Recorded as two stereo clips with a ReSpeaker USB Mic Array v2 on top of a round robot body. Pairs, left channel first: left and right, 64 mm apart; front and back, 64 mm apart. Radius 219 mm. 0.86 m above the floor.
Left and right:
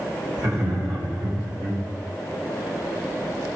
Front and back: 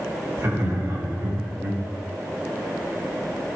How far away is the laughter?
About 5.5 m.